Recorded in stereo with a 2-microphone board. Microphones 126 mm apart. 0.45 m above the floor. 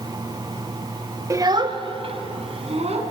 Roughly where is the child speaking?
Right.